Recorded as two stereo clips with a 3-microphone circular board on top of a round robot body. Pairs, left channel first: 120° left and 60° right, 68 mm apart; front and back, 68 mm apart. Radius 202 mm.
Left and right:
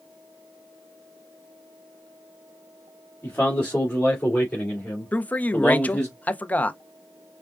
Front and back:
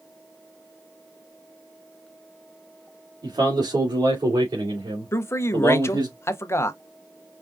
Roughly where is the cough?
I don't hear a cough.